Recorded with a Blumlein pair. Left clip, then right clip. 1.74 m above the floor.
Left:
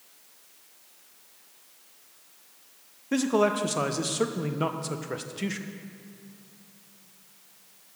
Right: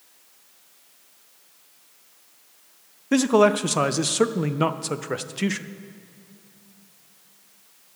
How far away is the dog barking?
I don't hear a dog barking.